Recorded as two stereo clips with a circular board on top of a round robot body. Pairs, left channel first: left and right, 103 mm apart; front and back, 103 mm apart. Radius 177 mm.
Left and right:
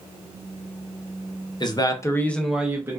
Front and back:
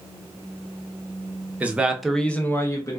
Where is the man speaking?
110° left, 0.8 m; by 3.0 s 40° right, 0.8 m.